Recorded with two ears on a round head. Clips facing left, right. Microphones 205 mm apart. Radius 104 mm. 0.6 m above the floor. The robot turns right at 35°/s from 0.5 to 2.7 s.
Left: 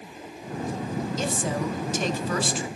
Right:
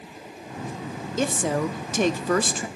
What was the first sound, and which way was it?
A woman speaking, 105° right.